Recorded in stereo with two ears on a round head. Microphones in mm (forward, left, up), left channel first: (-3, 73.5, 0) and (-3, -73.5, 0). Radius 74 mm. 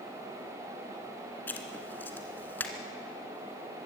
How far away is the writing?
About 2 m.